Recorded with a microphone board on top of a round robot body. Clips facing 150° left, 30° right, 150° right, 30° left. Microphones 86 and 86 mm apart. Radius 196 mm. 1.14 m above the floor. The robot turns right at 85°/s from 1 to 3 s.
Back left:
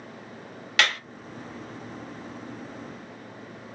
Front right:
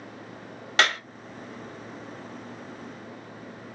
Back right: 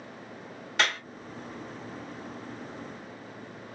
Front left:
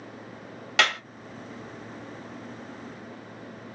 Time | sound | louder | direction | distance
0.8 | a clap | front right 2 dB, front left 3 dB | 30° left | 1.6 m